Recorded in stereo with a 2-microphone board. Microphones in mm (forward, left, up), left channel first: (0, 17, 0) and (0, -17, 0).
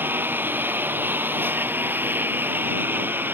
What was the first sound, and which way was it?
A lawn mower, 90° right.